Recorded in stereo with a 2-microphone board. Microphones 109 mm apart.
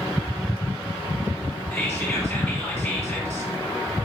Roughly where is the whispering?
Left.